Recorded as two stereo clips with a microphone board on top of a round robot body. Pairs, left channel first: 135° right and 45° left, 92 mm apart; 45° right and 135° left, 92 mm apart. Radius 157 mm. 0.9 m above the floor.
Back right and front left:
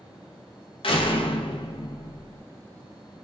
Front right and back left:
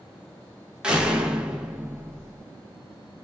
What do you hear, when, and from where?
0.8 s a door slam: 145° right, 0.6 m